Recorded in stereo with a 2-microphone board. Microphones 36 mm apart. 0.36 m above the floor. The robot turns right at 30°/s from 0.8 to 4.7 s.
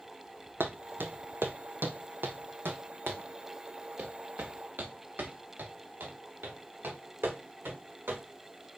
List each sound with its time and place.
0.6 s footsteps: 70° right (ahead or behind), 0.9 m; by 8.2 s 80° right, 4 m